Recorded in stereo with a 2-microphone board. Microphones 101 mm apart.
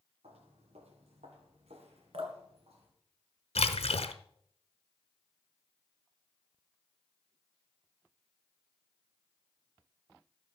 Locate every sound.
0.2 s footsteps: 75° right (ahead or behind), 3 m; by 2.9 s 80° right, 5 m
2.1 s dripping: 75° right (ahead or behind), 2.0 m
3.5 s a splash: 85° left, 0.8 m